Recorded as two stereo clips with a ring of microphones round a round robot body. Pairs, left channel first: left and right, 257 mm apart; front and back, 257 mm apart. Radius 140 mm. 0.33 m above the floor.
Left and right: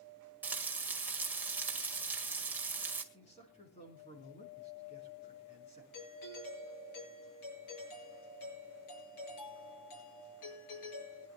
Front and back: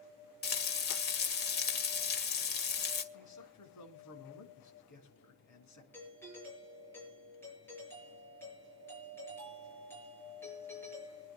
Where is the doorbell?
80° left, 7 m.